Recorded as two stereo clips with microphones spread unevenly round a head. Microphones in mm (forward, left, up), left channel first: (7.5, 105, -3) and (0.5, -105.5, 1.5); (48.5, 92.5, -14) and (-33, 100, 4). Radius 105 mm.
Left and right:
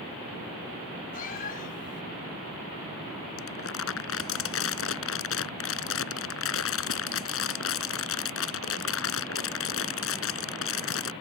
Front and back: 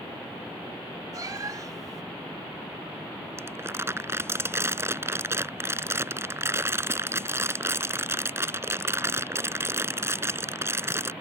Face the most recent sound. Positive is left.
turn(degrees=115)